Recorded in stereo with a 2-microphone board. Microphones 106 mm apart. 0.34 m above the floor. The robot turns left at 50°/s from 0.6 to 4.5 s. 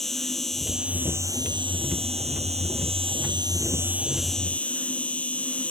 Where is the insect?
5° left; by 5.7 s 170° left.